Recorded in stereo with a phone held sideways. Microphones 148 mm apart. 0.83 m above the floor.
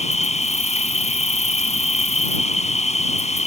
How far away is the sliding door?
I don't hear a sliding door.